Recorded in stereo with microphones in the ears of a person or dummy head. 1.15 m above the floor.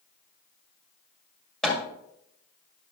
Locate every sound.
1.6 s hammering: centre (ahead or behind), 1.8 m